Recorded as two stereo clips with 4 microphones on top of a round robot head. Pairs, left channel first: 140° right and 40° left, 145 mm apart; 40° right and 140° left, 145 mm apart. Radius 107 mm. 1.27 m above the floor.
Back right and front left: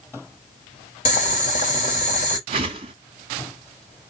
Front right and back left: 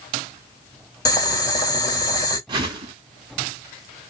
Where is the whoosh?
85° left, 1.0 m.